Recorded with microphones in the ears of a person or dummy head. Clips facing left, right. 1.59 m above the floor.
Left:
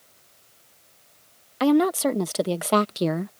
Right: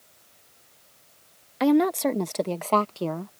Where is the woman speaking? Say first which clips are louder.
Left 1 dB; 10° left (ahead or behind); by 3.3 s 35° left (ahead or behind).